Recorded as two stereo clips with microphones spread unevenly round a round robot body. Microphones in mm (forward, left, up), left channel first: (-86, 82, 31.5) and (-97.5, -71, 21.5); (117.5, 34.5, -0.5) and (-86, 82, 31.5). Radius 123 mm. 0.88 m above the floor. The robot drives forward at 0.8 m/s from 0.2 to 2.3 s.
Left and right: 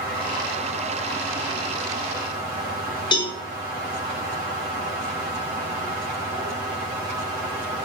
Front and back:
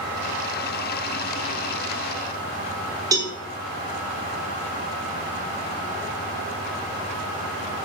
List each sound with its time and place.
3.1 s a cowbell: 95° left, 0.6 m